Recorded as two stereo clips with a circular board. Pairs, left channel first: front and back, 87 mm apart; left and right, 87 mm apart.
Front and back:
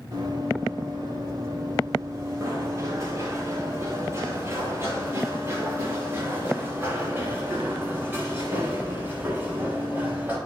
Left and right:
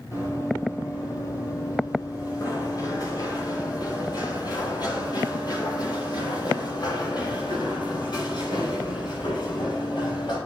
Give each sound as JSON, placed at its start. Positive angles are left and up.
{"t": 0.1, "sound": "running footsteps", "azimuth_deg": 140, "distance_m": 7.0}